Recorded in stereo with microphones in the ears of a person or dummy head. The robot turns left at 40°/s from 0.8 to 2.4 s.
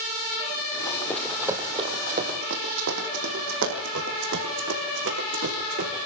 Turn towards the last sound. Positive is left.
turn(degrees=-55)  # may be behind; listen again after turning